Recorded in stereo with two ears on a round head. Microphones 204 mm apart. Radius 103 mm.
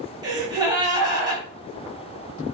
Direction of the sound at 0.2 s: 20° right (ahead or behind).